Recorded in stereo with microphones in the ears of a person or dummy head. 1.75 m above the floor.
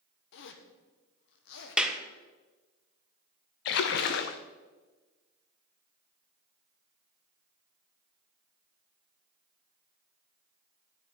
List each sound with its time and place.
0.3 s a zipper: 70° left (ahead or behind), 1.1 m
1.8 s a clap: 5° right (ahead or behind), 1.2 m
3.6 s a splash: 65° left (ahead or behind), 0.7 m